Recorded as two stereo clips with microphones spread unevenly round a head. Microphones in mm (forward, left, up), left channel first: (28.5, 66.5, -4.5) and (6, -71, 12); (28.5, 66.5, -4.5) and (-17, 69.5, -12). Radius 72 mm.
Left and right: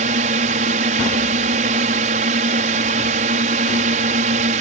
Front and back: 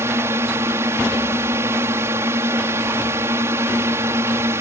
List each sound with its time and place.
0.0 s a drone: 135° right